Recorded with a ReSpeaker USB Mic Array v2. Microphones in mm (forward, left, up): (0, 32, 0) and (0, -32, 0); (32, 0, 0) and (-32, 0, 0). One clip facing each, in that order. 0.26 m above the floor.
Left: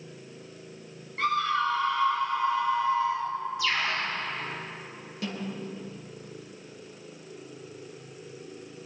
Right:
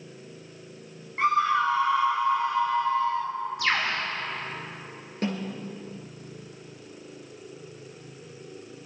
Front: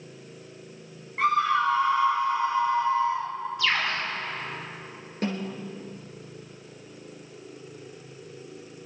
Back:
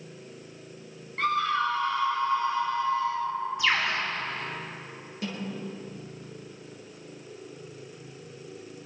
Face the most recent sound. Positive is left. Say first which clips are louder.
# right 4 dB, front 4 dB
turn(degrees=-45)